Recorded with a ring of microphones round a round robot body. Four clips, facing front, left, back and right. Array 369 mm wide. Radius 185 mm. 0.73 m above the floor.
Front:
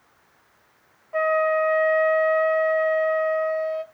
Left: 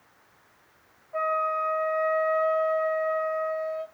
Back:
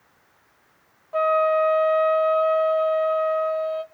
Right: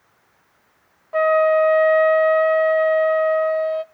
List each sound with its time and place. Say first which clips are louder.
1.1 s a flute: right 11 dB, back 1 dB; 100° right, 0.7 m